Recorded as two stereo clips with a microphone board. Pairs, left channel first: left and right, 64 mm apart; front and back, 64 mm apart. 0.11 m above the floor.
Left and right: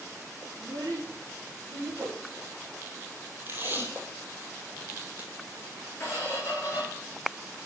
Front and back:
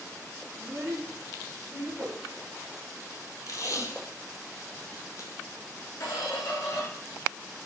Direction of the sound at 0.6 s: 110° right.